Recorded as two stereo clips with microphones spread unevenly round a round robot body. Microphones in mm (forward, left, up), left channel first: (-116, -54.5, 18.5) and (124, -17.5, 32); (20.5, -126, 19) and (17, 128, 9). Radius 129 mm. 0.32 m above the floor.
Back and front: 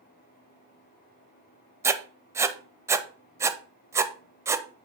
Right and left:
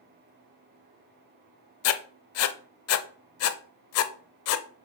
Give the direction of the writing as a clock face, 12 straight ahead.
2 o'clock.